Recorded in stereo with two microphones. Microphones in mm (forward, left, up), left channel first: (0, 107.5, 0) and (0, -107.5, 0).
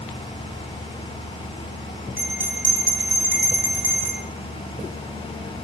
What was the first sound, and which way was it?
A bell, 10° right (ahead or behind).